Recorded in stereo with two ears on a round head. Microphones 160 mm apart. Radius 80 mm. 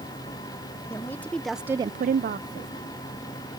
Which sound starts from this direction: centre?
A woman speaking, at 0.9 s.